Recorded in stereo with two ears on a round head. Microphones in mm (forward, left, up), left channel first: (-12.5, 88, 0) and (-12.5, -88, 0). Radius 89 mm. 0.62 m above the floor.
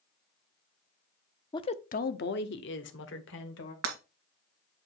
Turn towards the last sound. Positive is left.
turn(degrees=-80)